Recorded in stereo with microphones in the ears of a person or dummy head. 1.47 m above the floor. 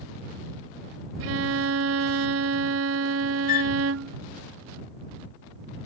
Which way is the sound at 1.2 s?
85° right.